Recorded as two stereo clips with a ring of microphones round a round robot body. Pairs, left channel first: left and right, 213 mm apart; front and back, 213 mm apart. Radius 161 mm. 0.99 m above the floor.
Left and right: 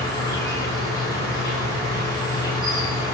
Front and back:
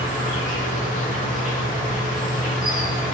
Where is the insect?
25° left, 1.5 m.